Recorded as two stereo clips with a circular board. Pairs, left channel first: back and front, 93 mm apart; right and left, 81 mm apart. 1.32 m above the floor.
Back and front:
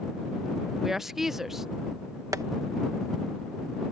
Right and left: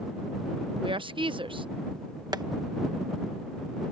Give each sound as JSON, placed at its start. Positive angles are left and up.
{"t": 0.8, "sound": "a woman speaking", "azimuth_deg": 85}
{"t": 2.3, "sound": "tapping", "azimuth_deg": 55}